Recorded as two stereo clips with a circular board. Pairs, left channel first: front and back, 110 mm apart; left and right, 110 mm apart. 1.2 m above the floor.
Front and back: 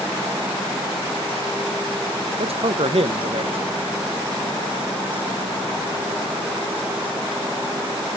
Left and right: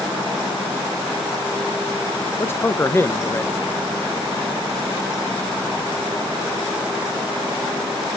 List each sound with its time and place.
2.4 s a man speaking: 155° left, 0.9 m